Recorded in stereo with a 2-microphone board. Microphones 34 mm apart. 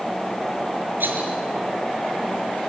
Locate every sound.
1.0 s a rattle: 75° right (ahead or behind), 4.5 m